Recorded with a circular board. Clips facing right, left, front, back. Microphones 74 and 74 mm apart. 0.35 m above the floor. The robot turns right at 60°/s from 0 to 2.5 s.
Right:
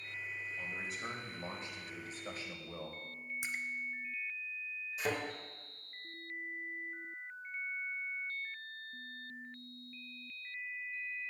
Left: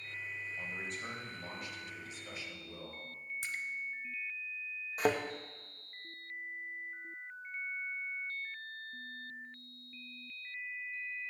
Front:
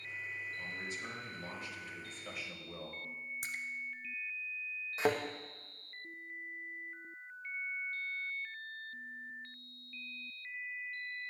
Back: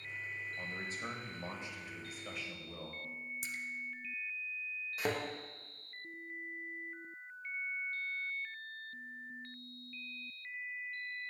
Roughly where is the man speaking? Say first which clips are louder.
Even, back 1 dB; behind.